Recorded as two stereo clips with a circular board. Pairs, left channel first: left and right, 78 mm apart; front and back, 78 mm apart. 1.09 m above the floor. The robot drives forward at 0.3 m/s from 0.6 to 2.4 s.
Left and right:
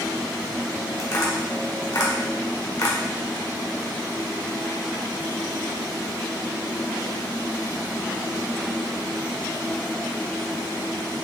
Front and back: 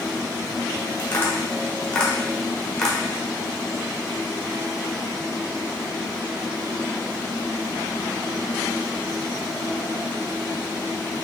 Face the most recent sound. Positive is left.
turn(degrees=80)